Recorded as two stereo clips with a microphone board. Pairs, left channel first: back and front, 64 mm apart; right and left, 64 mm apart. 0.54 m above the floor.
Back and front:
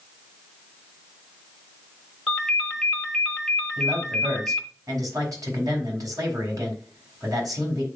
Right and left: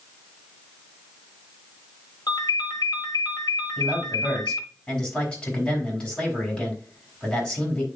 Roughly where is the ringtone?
Right.